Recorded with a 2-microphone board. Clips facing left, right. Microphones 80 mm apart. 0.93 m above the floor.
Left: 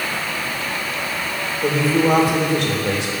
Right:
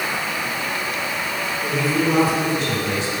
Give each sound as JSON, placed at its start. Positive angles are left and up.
{"t": 1.6, "sound": "a man speaking", "side_deg": 75, "distance_m": 3.0}